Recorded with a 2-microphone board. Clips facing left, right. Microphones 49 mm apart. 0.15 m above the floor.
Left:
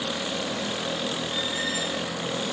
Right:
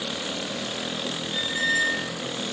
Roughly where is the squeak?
Left.